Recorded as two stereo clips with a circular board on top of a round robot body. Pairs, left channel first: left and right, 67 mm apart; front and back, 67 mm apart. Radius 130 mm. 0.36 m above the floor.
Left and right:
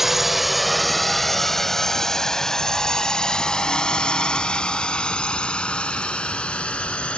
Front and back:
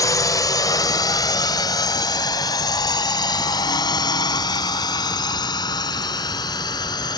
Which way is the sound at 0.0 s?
5° right.